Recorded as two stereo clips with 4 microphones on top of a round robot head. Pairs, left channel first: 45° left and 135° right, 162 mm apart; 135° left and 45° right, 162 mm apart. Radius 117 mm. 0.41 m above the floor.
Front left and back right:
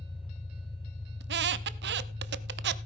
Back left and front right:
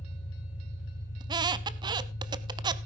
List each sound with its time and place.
0.0 s an engine running: 130° left, 5 m
1.2 s a squeak: 110° right, 0.6 m